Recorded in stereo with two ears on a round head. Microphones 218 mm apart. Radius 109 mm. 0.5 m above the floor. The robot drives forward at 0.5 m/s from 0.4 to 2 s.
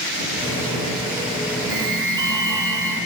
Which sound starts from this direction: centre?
An alarm, at 1.7 s.